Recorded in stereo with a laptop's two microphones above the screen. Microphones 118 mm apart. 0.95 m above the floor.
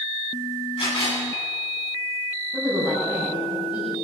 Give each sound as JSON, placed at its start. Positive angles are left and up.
{"t": 0.8, "sound": "a camera shutter", "side_deg": 55, "distance_m": 10.0}
{"t": 2.5, "sound": "a woman speaking", "side_deg": -10, "distance_m": 6.5}